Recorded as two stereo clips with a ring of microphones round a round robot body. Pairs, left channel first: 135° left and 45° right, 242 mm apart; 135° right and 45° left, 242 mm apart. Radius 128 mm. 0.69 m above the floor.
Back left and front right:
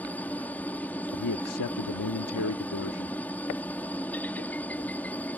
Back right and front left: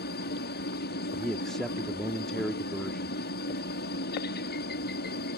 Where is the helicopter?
145° right.